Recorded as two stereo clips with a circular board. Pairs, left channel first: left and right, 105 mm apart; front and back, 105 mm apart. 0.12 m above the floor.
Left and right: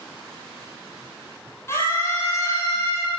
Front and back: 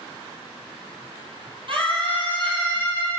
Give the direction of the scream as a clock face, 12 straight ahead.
7 o'clock.